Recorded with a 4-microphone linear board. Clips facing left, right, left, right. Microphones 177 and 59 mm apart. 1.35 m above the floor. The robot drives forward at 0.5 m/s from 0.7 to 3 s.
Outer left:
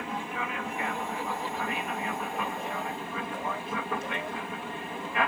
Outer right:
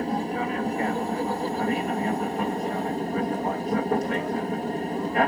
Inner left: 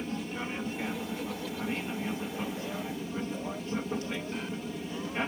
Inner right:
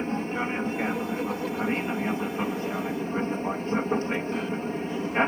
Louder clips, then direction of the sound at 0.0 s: Outer right 8 dB, inner right 7 dB; 40° right (ahead or behind).